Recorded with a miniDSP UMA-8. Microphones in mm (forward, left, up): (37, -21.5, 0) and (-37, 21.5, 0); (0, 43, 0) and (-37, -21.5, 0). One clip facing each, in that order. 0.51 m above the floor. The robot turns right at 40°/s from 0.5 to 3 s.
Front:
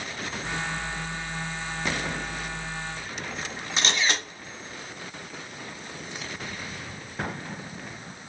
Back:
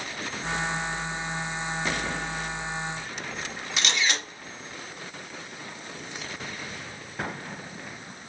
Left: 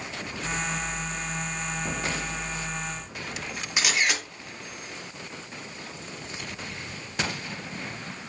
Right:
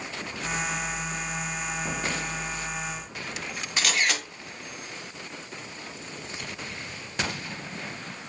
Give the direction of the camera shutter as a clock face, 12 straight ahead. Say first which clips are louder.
Front 1 dB, left 1 dB; 12 o'clock.